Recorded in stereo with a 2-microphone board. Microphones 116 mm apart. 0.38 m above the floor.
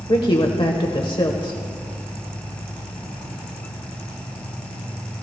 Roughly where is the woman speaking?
Left.